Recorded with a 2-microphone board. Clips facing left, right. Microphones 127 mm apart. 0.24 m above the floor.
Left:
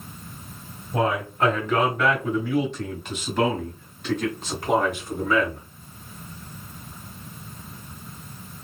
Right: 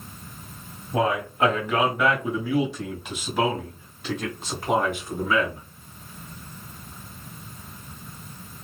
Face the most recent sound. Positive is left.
turn(degrees=-5)  # may be behind; listen again after turning